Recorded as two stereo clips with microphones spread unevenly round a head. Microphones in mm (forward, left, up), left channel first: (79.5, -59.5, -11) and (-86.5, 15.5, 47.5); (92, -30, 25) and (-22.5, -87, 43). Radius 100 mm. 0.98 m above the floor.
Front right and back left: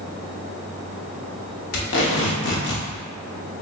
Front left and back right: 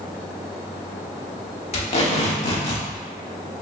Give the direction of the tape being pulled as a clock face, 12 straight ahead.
12 o'clock.